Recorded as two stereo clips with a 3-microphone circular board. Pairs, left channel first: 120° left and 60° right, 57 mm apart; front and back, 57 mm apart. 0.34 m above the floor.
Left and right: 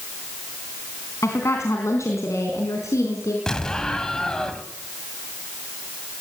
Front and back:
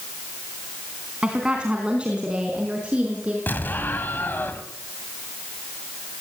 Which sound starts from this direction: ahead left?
An explosion, at 3.5 s.